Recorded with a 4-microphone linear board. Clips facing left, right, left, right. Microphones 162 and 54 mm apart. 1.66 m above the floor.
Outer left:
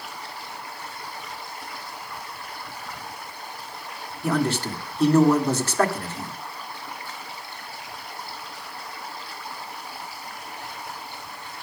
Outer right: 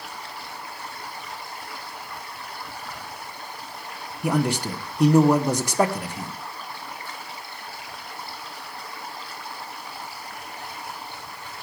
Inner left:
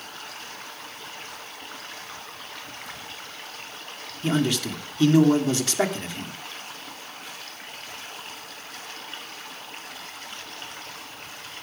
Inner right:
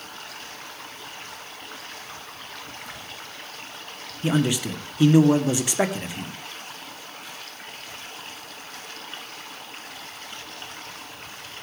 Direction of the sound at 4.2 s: 15° right (ahead or behind).